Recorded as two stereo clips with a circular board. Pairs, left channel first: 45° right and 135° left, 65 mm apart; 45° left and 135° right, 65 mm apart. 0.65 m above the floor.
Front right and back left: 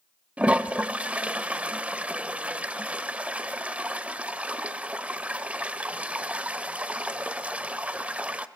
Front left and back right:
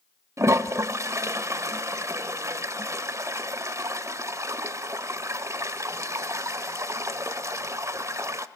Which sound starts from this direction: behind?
A toilet flushing, at 0.4 s.